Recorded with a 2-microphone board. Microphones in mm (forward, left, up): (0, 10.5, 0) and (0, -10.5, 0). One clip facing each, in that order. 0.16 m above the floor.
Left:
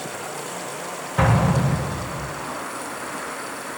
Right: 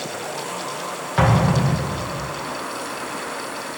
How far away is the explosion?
About 6 m.